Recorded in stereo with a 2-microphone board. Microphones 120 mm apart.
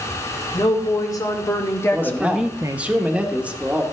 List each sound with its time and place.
0.5 s a woman speaking: 30° left (ahead or behind), 3 m; by 2.9 s 40° right (ahead or behind), 0.8 m
1.9 s a man speaking: 10° right (ahead or behind), 1.1 m